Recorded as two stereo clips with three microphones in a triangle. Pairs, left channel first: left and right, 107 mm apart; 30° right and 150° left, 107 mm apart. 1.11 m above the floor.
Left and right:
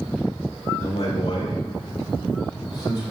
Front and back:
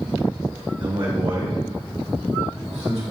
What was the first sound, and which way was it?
A man speaking, 105° left.